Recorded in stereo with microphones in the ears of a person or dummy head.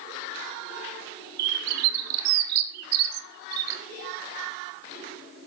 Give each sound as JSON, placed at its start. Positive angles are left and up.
{"t": 1.4, "sound": "a bird", "side_deg": -55, "distance_m": 0.6}